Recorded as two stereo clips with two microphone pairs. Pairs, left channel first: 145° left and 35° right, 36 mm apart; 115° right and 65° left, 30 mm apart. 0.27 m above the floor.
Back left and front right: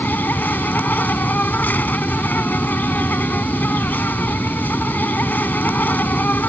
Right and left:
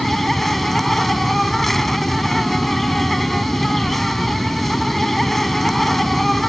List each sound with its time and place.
0.0 s an insect: 165° left